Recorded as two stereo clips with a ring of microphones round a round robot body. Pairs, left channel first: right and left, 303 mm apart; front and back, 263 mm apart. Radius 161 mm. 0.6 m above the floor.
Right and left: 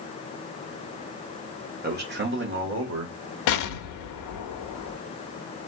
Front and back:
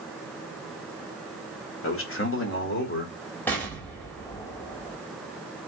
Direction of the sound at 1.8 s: 30° left.